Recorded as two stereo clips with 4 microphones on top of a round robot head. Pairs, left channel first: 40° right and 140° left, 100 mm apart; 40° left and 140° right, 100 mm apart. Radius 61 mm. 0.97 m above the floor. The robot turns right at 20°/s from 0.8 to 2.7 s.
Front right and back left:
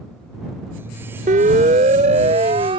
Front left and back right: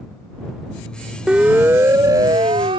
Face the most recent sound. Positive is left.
turn(degrees=180)